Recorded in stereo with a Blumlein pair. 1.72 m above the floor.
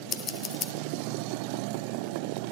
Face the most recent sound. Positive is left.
turn(degrees=25)